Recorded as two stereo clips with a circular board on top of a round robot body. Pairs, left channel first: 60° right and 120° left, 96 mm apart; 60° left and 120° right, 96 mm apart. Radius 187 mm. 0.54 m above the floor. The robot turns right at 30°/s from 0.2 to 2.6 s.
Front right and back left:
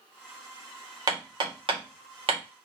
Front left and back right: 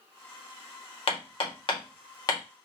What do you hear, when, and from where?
1.1 s hammering: 75° left, 1.8 m; by 2.4 s 115° left, 1.8 m